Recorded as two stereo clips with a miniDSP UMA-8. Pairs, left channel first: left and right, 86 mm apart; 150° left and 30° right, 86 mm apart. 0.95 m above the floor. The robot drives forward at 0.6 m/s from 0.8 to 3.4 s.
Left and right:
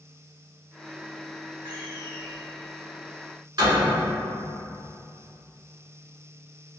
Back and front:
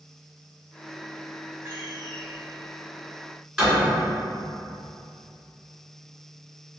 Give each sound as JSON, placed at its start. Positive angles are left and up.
{"t": 1.6, "sound": "a door slam", "azimuth_deg": -90, "distance_m": 1.7}